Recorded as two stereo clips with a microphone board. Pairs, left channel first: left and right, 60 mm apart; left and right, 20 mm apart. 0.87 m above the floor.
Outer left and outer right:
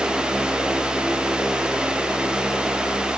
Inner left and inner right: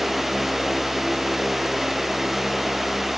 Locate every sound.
Only background noise.